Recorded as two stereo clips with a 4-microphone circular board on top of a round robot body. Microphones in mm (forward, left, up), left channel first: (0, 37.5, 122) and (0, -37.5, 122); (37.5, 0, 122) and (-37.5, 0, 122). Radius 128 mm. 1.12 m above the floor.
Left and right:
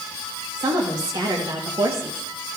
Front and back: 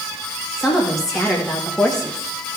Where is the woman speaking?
90° right, 2 m; by 2.5 s 75° right, 0.9 m.